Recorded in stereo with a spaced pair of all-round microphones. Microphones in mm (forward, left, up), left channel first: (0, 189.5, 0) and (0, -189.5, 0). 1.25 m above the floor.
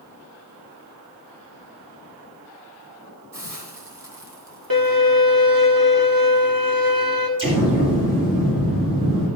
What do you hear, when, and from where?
3.3 s a hiss: 60° right (ahead or behind), 3.5 m
4.7 s a violin: 65° right (ahead or behind), 1.7 m
7.4 s an explosion: 30° right (ahead or behind), 5.5 m